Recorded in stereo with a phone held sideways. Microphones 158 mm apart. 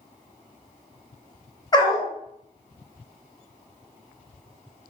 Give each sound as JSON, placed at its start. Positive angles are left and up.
{"t": 1.7, "sound": "a dog barking", "side_deg": 25, "distance_m": 0.6}